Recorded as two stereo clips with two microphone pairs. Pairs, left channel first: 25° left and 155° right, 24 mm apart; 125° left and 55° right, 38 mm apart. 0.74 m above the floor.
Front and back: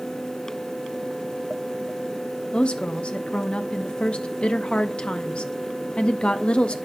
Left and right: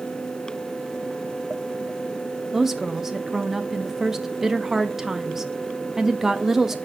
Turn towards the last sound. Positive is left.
turn(degrees=20)